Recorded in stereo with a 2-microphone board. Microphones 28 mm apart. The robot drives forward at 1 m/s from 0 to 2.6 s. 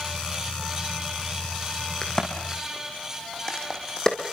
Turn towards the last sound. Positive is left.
turn(degrees=30)  # may be behind; listen again after turning